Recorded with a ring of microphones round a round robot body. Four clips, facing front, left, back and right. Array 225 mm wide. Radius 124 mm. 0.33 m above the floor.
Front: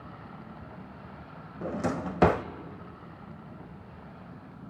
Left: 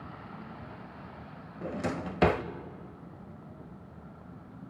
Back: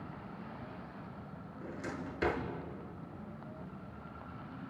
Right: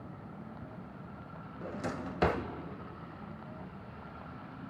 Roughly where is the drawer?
Ahead.